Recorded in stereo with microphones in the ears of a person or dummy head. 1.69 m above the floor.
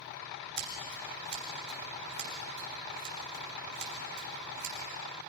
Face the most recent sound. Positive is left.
turn(degrees=-60)  # may be behind; listen again after turning